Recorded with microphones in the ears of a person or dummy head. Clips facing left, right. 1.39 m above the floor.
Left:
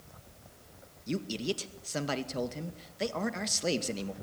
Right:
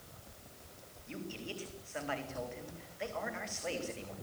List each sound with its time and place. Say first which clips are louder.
1.1 s a man speaking: left 10 dB; 50° left (ahead or behind), 2 m